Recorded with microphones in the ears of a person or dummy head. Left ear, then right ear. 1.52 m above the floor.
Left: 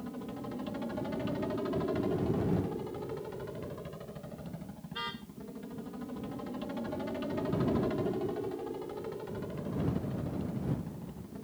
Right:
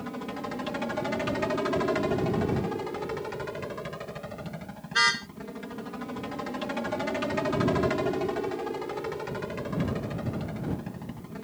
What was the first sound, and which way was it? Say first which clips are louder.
A helicopter: right 7 dB; 50° right (ahead or behind).